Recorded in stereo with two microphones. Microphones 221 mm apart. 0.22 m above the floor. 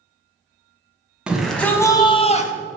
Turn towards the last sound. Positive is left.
turn(degrees=35)  # may be behind; listen again after turning